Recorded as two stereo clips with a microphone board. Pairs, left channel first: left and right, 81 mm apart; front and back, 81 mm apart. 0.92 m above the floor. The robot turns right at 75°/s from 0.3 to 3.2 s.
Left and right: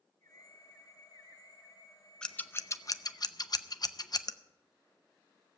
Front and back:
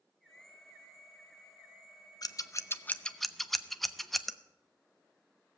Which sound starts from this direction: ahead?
Scissors, at 2.2 s.